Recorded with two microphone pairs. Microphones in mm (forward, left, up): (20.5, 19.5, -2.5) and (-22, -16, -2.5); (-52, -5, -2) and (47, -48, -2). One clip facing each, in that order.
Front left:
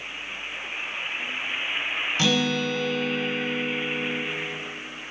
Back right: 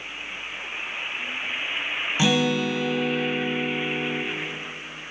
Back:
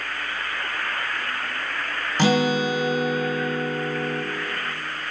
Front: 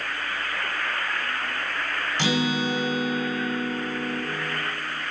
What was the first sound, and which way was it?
A guitar, 155° left.